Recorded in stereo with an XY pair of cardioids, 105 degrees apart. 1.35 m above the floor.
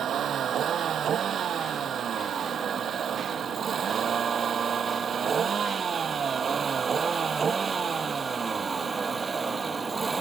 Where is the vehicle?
55° right; by 10.2 s 25° right.